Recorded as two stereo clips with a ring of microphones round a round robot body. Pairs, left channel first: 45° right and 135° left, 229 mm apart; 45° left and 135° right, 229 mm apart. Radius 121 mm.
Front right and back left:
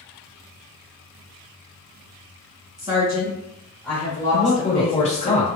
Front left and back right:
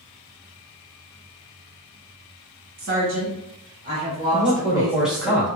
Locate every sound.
2.8 s a woman speaking: 150° right, 1.6 m; by 5.3 s 40° right, 1.2 m
4.3 s a man speaking: 50° right, 1.0 m